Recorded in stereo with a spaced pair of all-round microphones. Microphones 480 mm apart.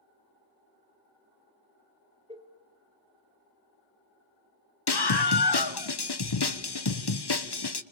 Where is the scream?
55° left (ahead or behind), 1.1 m.